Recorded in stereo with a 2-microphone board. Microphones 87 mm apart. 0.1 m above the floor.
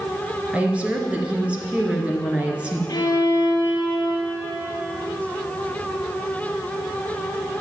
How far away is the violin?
About 2.5 m.